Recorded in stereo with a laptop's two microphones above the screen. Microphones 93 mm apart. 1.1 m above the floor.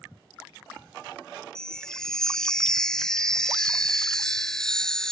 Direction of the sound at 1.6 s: 5° left (ahead or behind).